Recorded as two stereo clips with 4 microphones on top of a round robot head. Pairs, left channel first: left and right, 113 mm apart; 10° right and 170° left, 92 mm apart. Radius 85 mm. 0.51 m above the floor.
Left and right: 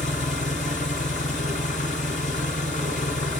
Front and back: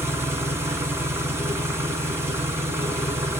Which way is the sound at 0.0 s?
105° left.